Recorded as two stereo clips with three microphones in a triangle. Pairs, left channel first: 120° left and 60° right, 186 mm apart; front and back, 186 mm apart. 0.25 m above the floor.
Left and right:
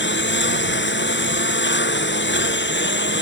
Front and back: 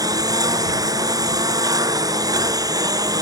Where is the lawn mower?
110° left.